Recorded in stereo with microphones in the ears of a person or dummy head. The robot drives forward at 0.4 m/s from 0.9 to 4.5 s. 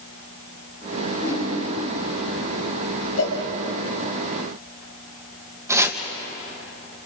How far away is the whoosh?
About 10 m.